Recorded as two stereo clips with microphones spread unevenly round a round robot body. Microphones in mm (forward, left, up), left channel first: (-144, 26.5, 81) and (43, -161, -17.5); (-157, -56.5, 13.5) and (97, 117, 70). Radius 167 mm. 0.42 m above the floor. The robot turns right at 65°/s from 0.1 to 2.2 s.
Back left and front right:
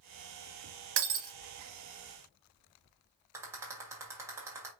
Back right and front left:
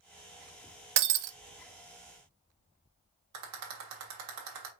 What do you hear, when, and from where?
1.0 s breaking glass: 10° left, 0.5 m; by 1.4 s 35° left, 0.5 m
3.3 s a rattle: 10° left, 1.7 m